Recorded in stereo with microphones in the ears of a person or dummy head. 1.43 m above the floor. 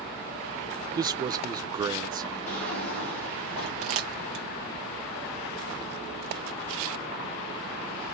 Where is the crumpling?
40° right (ahead or behind), 0.9 m.